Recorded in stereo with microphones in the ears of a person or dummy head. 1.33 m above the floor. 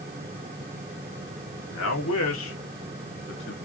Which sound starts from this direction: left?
A man speaking, at 1.7 s.